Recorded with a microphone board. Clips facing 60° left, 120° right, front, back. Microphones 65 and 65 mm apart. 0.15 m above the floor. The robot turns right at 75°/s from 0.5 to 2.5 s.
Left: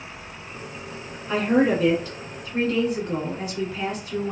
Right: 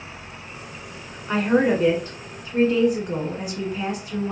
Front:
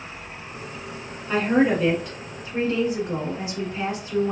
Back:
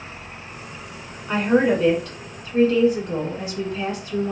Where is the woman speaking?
140° right, 1.4 m; by 4.3 s 45° right, 1.4 m.